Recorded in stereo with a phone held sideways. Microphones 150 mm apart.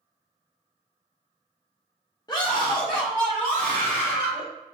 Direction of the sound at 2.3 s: 30° left (ahead or behind).